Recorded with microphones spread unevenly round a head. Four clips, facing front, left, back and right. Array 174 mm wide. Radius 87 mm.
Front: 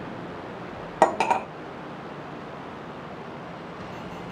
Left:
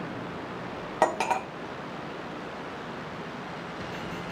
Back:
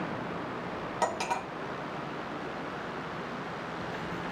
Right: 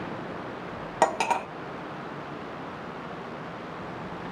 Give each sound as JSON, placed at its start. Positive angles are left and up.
{"t": 1.0, "sound": "cutlery clinking", "azimuth_deg": 10, "distance_m": 0.6}